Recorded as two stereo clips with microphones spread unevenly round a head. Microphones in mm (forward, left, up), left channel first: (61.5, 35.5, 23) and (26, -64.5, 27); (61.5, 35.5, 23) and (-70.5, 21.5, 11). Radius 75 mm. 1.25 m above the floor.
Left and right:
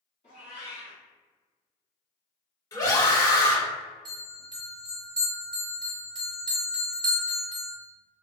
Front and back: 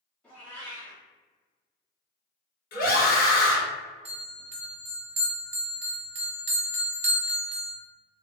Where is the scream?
15° left, 1.3 m.